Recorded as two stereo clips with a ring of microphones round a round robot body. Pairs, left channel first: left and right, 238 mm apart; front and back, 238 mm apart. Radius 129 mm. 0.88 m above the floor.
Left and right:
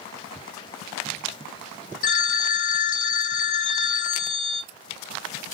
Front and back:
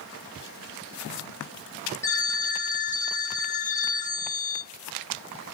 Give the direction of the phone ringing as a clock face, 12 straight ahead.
9 o'clock.